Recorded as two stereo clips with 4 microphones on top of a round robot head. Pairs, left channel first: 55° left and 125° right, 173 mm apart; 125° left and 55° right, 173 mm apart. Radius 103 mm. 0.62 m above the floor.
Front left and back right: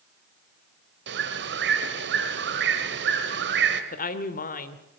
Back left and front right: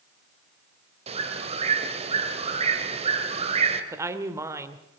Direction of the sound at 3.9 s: 20° left.